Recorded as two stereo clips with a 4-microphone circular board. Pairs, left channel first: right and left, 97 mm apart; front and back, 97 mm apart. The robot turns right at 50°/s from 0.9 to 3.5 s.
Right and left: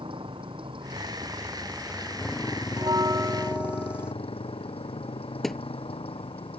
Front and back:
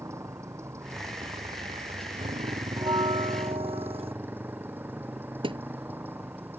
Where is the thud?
Straight behind.